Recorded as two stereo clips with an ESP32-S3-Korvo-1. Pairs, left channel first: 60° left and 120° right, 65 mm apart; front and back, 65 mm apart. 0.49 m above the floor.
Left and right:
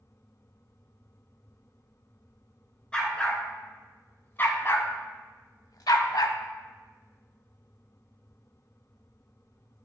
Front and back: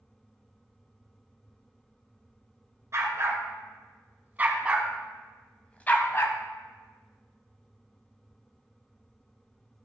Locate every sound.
2.9 s a dog barking: 135° left, 1.8 m; by 6.4 s 45° left, 0.8 m